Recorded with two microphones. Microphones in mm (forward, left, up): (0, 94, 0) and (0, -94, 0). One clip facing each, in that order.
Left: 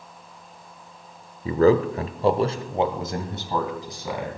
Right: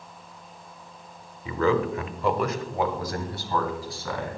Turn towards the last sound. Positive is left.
turn(degrees=15)  # may be behind; listen again after turning